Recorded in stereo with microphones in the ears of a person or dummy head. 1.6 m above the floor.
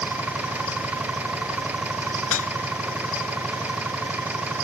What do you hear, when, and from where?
0.0 s an engine running: 10° right (ahead or behind)
2.3 s dishes clattering: 75° left (ahead or behind)